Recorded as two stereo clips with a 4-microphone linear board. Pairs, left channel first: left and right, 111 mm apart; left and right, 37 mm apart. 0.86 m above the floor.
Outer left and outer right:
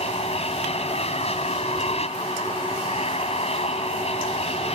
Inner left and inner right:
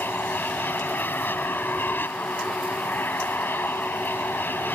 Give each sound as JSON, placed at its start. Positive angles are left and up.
{"t": 0.0, "sound": "an aircraft", "side_deg": 65}